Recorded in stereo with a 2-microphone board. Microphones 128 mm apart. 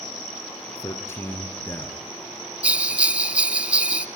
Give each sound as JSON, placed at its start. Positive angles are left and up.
{"t": 0.8, "sound": "a man speaking", "side_deg": 20, "distance_m": 2.0}
{"t": 2.6, "sound": "a bell", "side_deg": -10, "distance_m": 0.5}